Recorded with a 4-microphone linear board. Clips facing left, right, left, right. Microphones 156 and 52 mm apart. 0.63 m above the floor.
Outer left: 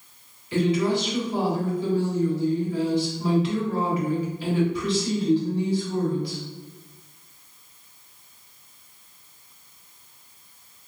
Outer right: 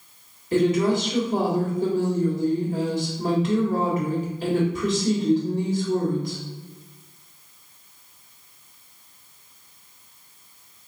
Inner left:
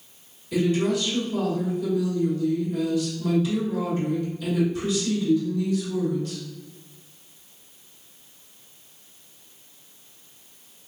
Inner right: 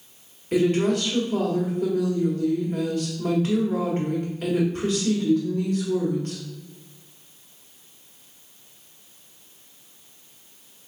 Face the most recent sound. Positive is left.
turn(degrees=-45)  # may be behind; listen again after turning